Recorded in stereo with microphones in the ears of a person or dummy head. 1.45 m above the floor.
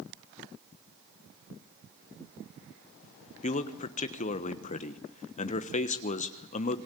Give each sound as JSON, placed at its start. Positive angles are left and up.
{"t": 3.4, "sound": "a man speaking", "side_deg": 35, "distance_m": 1.2}